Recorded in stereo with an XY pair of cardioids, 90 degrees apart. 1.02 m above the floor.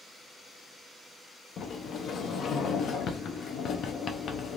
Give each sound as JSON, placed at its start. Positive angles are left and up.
{"t": 1.6, "sound": "a sliding door", "azimuth_deg": 70, "distance_m": 0.6}